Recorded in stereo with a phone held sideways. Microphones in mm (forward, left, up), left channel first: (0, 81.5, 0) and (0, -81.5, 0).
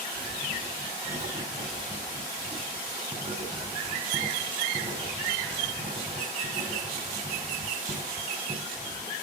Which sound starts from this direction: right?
Writing, at 0.1 s.